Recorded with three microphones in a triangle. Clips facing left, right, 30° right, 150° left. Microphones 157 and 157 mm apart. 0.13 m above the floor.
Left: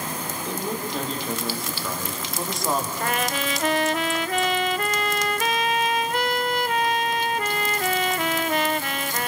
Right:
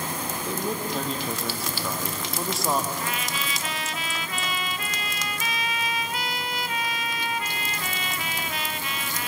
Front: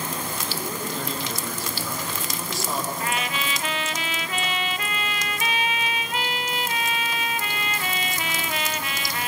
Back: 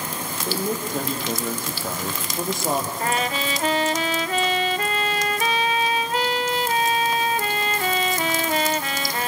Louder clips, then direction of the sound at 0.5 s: Even, back 5 dB; straight behind.